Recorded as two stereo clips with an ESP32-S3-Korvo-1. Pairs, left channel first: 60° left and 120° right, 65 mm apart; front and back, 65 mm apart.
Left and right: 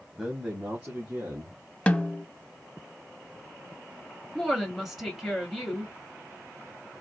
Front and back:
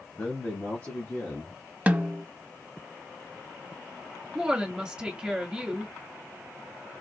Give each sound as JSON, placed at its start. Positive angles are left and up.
{"t": 0.1, "sound": "a man speaking", "azimuth_deg": -45, "distance_m": 1.1}
{"t": 1.9, "sound": "a snare drum", "azimuth_deg": 125, "distance_m": 0.6}
{"t": 4.3, "sound": "a woman speaking", "azimuth_deg": 150, "distance_m": 1.4}